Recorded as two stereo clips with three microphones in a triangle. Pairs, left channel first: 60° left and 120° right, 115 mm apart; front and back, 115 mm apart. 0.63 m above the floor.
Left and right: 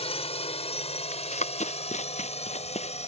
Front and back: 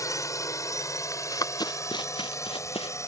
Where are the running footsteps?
65° left; by 3.1 s 35° left.